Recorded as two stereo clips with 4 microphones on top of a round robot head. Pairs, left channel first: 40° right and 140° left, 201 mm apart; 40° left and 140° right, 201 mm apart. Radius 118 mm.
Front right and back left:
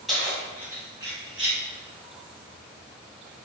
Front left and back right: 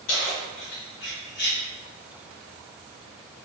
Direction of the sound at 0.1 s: 50° left.